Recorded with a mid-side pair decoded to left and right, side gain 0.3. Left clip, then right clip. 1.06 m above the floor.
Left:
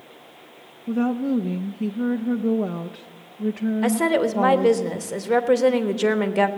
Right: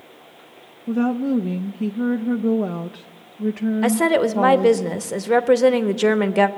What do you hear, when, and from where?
0.9 s a woman speaking: 20° right, 0.5 m
3.8 s a woman speaking: 30° right, 1.1 m